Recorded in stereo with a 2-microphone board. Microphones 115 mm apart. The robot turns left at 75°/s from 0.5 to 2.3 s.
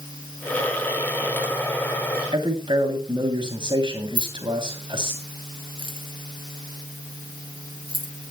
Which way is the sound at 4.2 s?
50° right (ahead or behind).